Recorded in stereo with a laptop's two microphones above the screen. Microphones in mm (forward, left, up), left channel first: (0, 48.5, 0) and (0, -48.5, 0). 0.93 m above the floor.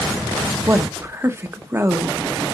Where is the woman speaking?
25° right (ahead or behind), 0.9 m.